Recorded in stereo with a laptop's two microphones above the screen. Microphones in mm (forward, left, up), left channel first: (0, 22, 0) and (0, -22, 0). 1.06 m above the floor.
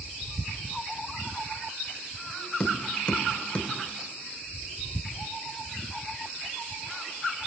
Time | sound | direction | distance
2.6 | tapping | 30° left (ahead or behind) | 1.4 m